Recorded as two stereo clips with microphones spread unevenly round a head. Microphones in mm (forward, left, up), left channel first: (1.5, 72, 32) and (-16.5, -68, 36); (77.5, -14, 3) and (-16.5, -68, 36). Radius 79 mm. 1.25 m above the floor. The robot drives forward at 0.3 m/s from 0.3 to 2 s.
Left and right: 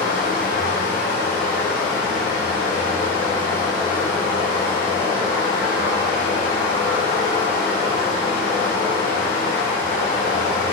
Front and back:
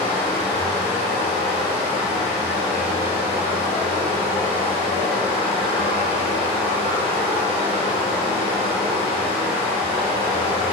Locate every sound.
0.0 s running water: 110° left, 0.9 m; by 10.7 s 135° left, 1.2 m